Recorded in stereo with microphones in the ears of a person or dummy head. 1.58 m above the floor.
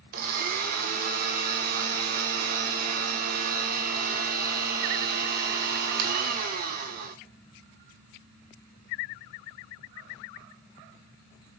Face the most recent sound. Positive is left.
turn(degrees=-50)  # may be behind; listen again after turning